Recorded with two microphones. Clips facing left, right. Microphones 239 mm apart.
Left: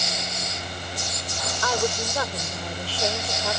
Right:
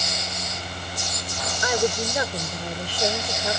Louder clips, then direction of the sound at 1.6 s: Right 3 dB; 15° right (ahead or behind).